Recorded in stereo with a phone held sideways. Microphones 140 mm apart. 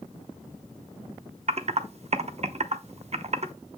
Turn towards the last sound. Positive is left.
turn(degrees=-50)  # may be behind; listen again after turning